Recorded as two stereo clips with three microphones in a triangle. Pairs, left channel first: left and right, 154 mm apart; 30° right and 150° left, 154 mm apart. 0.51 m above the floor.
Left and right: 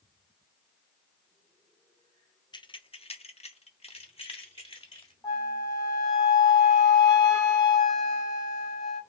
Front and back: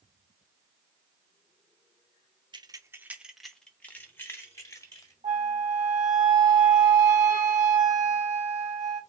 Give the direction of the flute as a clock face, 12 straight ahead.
7 o'clock.